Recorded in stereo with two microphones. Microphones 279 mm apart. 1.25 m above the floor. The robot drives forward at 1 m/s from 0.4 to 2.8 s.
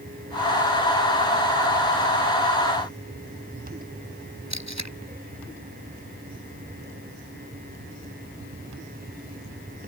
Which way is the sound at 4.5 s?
75° right (ahead or behind).